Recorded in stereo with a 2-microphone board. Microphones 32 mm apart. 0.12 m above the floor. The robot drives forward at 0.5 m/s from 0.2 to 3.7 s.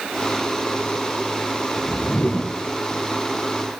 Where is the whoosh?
60° left (ahead or behind), 0.7 m; by 2.5 s 45° left (ahead or behind), 0.8 m.